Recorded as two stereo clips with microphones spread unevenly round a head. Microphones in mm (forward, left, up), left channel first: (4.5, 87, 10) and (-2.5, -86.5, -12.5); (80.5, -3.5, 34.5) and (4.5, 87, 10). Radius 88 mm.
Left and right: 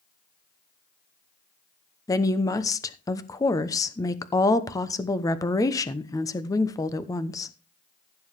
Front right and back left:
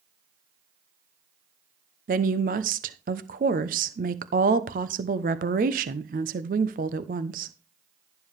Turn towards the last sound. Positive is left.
turn(degrees=150)